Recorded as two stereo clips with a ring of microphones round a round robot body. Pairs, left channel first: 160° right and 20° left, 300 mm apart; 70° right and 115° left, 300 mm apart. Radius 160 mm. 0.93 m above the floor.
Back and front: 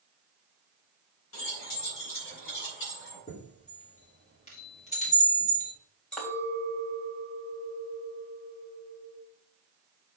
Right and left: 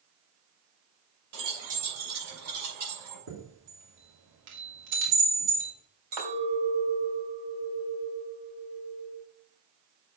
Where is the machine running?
I don't hear a machine running.